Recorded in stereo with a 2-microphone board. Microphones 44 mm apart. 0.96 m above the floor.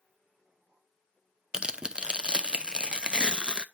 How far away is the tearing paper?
About 0.5 m.